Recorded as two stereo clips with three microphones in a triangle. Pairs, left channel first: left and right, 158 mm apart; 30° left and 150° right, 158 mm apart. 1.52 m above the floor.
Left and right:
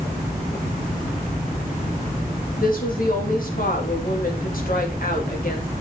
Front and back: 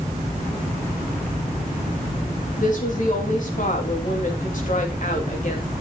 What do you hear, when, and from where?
2.6 s a woman speaking: 65° left, 3 m